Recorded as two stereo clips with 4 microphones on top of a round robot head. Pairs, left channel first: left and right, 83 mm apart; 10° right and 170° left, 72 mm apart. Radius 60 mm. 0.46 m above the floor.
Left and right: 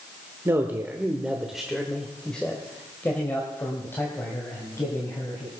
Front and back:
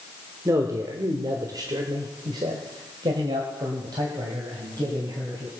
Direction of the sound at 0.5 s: 145° right.